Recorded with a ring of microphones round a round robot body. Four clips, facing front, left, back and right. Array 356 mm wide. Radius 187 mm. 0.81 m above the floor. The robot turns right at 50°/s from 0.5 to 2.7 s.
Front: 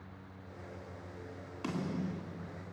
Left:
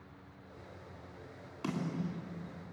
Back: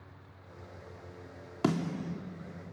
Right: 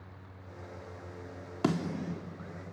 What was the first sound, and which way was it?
A snare drum, 135° right.